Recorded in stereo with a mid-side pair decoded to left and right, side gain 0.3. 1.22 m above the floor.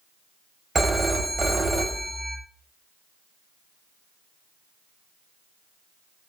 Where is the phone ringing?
40° right, 1.2 m.